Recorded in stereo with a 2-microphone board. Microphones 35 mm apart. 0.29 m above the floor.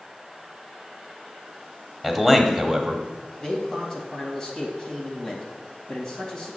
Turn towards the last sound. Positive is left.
turn(degrees=20)  # may be behind; listen again after turning